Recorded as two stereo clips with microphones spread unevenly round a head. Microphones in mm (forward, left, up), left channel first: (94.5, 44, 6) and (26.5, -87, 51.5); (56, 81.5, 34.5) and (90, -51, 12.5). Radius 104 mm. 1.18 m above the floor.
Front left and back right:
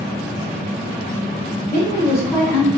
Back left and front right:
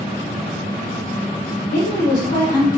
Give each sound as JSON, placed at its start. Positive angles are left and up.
{"t": 1.7, "sound": "a woman speaking", "azimuth_deg": 145, "distance_m": 0.7}